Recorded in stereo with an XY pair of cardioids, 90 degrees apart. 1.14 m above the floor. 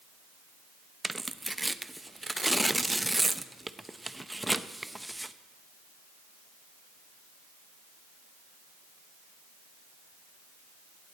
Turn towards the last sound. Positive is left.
turn(degrees=-15)